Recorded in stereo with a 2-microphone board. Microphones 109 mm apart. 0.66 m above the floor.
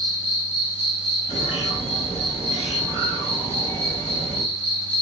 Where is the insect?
70° left (ahead or behind), 2.5 m.